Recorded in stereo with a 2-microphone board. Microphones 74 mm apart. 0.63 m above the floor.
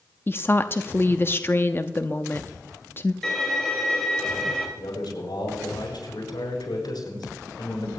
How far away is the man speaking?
About 8 m.